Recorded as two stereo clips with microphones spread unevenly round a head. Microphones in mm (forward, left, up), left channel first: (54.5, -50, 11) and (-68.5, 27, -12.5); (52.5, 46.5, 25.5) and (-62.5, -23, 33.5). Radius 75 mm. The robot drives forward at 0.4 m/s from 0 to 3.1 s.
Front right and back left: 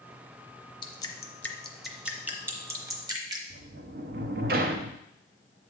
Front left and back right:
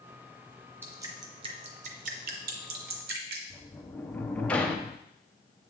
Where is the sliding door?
115° left, 0.6 m.